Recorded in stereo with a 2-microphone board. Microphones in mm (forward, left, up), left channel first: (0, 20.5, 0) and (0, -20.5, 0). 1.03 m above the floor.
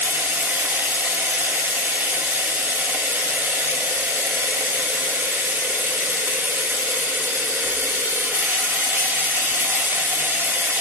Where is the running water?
55° right (ahead or behind), 1.3 m.